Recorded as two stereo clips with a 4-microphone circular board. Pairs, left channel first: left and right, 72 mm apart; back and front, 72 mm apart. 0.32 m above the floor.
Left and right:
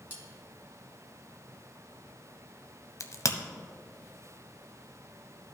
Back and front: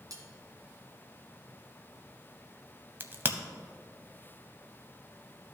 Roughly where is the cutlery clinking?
Ahead right.